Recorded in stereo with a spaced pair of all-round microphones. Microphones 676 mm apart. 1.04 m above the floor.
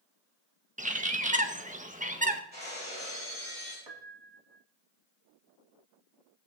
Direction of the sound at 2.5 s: 15° right (ahead or behind).